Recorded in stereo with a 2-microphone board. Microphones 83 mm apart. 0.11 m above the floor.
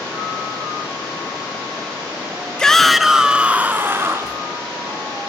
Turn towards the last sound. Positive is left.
turn(degrees=-35)  # may be behind; listen again after turning